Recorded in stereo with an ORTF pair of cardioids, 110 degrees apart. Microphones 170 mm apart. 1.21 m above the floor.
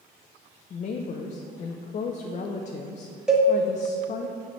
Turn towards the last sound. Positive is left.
turn(degrees=-5)